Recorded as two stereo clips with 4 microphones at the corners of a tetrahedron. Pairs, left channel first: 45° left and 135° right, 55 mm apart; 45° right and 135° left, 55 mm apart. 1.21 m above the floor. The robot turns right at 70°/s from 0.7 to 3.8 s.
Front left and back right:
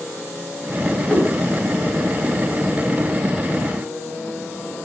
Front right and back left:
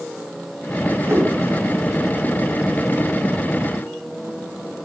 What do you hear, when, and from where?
1.1 s a whoosh: 110° left, 1.4 m; by 1.3 s 130° left, 1.4 m